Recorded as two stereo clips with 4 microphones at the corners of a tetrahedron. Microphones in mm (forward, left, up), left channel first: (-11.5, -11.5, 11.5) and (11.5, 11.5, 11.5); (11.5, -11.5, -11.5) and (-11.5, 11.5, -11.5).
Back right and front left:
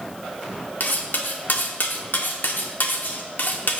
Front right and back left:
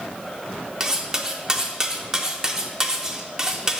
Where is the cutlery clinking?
155° right, 0.6 m.